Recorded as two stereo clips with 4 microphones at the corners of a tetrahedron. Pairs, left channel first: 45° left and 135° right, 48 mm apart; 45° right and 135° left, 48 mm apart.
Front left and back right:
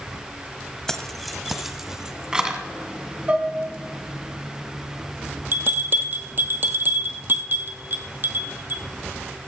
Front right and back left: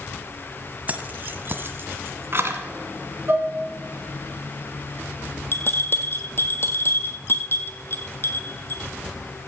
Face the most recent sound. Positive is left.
turn(degrees=-90)